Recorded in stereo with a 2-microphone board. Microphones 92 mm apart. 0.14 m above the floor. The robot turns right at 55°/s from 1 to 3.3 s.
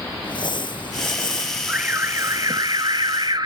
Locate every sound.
0.2 s crumpling: 80° left, 1.4 m; by 2.7 s 170° left, 1.4 m
1.7 s an alarm: 165° right, 1.4 m; by 3.5 s 75° right, 1.4 m